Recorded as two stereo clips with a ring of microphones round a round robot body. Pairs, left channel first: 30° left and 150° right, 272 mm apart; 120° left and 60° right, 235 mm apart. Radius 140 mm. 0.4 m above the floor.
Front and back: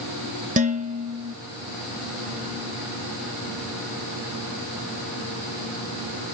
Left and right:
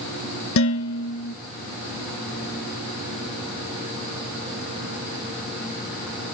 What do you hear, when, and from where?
0.6 s dishes clattering: 150° left, 1.4 m